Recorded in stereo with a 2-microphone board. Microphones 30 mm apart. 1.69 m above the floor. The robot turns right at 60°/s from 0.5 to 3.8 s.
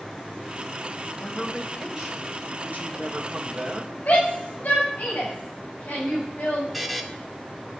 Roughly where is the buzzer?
Centre.